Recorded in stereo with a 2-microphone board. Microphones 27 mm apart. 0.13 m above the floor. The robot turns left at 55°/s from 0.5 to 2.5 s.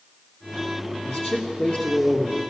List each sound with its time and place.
1.1 s a man speaking: 85° left, 2.5 m; by 2.4 s 10° left, 2.5 m